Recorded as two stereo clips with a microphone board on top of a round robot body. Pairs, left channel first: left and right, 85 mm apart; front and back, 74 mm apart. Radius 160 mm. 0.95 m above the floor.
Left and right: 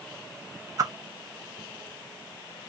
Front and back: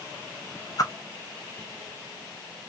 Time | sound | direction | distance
0.8 | a whoosh | 40° right | 0.6 m